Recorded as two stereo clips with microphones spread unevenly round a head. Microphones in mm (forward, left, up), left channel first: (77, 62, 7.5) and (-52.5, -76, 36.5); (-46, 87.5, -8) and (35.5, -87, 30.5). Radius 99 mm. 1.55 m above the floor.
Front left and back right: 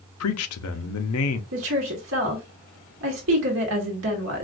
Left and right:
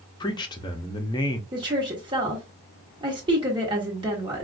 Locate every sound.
0.2 s a man speaking: 40° left, 0.6 m
1.5 s a woman speaking: 125° right, 1.1 m